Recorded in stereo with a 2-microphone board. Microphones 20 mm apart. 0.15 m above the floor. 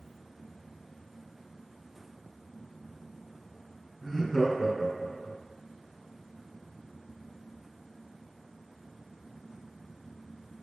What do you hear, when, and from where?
4.0 s laughter: 20° left (ahead or behind), 1.2 m